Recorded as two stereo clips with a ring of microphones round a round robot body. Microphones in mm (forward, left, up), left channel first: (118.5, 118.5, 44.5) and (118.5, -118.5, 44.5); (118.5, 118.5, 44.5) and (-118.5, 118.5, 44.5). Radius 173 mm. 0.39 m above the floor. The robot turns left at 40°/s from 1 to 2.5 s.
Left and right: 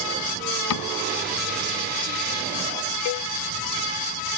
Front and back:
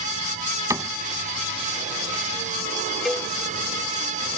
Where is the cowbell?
90° left.